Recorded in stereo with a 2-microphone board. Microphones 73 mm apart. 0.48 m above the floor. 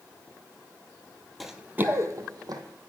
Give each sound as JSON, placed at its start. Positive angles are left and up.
{"t": 1.4, "sound": "running footsteps", "side_deg": 0, "distance_m": 0.6}